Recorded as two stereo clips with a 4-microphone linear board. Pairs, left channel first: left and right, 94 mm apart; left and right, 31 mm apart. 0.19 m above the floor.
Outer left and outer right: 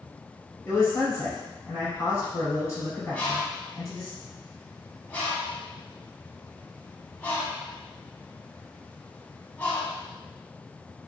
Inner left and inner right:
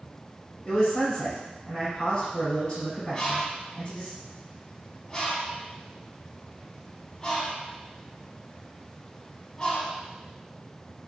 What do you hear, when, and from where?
0.7 s a man speaking: 30° left (ahead or behind), 1.3 m
3.1 s a bird: 20° left (ahead or behind), 0.7 m